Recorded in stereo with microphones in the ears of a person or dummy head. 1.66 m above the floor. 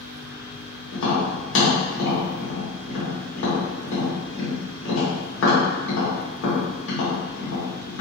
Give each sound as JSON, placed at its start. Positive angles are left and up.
{"t": 0.9, "sound": "tapping", "side_deg": 60, "distance_m": 1.4}